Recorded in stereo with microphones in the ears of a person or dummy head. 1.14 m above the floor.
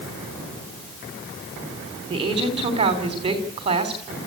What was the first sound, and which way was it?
A woman speaking, 30° right (ahead or behind).